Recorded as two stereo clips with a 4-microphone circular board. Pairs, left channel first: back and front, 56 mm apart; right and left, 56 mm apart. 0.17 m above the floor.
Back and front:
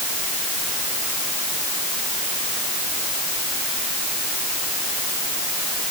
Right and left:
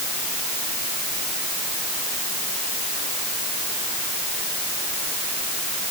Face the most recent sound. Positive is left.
No sound to turn to.